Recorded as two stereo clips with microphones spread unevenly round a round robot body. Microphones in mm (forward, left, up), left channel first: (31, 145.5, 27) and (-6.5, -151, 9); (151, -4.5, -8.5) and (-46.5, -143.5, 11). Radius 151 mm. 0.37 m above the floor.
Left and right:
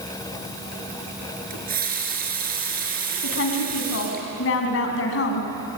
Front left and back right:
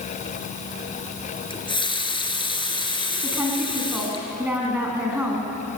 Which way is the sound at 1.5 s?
35° right.